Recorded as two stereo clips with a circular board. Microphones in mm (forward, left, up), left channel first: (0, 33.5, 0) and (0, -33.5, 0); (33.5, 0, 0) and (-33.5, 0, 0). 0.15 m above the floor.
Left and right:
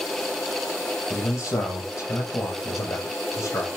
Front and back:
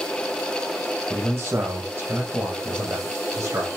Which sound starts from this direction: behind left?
A man speaking, at 1.1 s.